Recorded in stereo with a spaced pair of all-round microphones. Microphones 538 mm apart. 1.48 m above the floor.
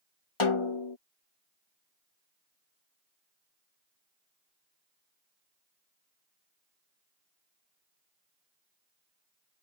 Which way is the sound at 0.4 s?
65° left (ahead or behind).